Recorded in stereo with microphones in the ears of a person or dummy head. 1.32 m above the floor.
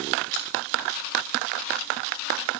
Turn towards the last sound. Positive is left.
turn(degrees=45)  # may be behind; listen again after turning